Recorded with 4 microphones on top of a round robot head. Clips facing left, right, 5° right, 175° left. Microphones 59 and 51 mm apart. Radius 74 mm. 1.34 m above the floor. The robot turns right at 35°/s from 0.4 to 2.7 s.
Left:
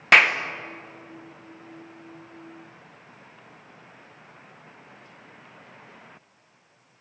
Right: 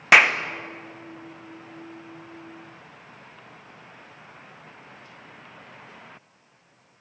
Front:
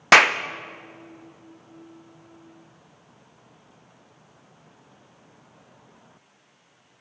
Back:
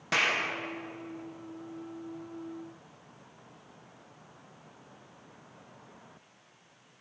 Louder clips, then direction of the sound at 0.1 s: Right 1 dB, front 13 dB; 5° right.